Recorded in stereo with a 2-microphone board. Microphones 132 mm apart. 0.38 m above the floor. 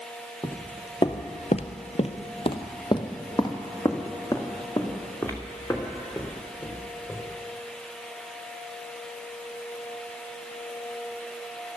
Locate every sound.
0.4 s footsteps: 20° left (ahead or behind), 0.9 m